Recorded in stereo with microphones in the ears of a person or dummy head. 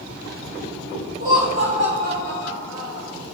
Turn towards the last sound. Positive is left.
turn(degrees=-75)  # may be behind; listen again after turning